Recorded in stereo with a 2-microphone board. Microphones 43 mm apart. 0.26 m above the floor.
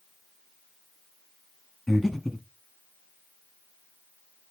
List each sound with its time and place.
1.9 s breathing: 5° left (ahead or behind), 1.1 m